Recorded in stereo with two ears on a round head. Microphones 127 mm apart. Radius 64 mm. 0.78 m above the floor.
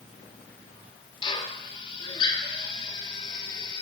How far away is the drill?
About 1.6 m.